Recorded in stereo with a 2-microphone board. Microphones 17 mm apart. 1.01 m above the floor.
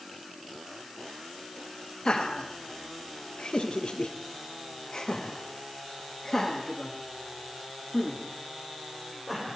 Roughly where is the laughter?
Left.